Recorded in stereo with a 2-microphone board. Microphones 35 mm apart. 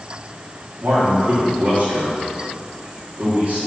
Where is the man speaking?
65° right (ahead or behind), 2 m.